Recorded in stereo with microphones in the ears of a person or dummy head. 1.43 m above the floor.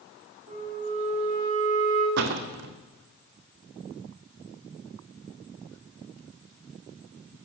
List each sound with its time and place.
0.5 s a flute: 30° right (ahead or behind), 7 m
2.2 s a door slam: 60° right (ahead or behind), 2 m